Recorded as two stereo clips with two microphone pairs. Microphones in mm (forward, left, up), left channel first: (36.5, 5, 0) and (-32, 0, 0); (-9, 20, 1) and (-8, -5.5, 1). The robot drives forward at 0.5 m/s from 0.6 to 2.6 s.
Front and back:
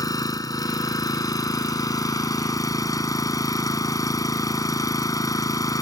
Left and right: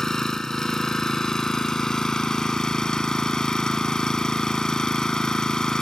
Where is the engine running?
25° left; by 5.8 s 30° left.